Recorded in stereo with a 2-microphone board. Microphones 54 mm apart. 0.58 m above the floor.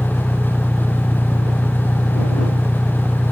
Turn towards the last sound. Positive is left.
turn(degrees=10)  # may be behind; listen again after turning